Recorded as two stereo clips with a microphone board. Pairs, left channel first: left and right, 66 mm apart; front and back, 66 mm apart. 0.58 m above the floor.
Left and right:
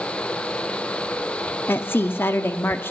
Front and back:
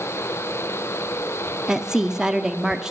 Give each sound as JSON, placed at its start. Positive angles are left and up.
{"t": 1.7, "sound": "a woman speaking", "azimuth_deg": 105, "distance_m": 0.7}